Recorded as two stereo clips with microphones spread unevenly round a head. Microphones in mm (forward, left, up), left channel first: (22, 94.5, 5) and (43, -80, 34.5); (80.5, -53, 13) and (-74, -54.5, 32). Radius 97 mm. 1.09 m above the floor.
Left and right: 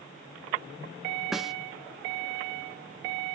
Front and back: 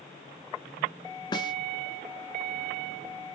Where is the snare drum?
20° right, 0.6 m.